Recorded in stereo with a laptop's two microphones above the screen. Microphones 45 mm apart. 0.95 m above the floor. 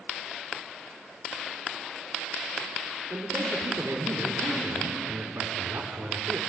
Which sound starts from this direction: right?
A man speaking, at 3.1 s.